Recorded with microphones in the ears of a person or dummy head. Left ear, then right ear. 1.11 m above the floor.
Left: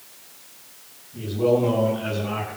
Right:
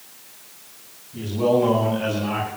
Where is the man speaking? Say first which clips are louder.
Right 1 dB; 85° right, 8 m; by 2.5 s 75° right (ahead or behind), 8.5 m.